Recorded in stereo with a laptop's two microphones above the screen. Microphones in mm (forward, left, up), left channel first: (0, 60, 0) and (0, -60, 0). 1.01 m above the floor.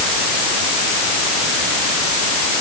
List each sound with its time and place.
Only background noise.